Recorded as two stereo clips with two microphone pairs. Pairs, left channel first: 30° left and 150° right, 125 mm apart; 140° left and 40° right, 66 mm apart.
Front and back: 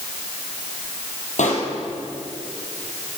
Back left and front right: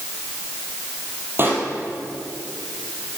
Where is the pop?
15° left, 3 m.